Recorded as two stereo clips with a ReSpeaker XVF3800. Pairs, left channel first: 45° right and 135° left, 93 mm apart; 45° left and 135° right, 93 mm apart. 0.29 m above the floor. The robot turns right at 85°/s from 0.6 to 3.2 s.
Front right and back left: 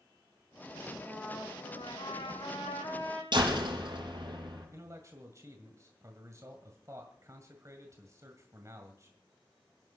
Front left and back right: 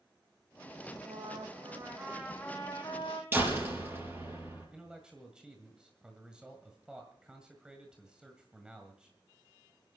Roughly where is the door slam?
Behind.